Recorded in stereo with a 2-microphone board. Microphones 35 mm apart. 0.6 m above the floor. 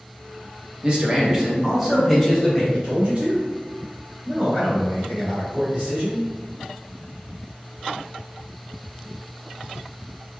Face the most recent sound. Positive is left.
turn(degrees=-30)  # may be behind; listen again after turning